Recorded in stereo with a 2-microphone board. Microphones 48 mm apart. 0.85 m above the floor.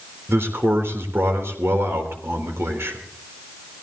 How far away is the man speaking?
About 3.5 m.